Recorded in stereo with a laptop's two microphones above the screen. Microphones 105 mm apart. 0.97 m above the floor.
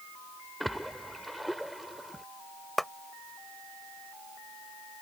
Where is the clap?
Centre (ahead or behind).